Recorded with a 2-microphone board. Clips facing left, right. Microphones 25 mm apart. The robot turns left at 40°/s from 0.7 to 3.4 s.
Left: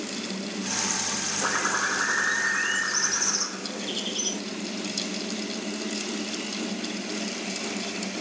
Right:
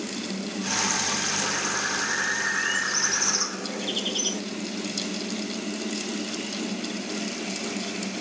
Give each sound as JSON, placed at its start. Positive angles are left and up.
{"t": 1.4, "sound": "a bird", "azimuth_deg": 60, "distance_m": 0.6}